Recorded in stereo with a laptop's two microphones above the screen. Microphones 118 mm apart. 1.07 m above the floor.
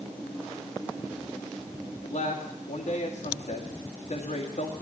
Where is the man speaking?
80° left, 2.0 m.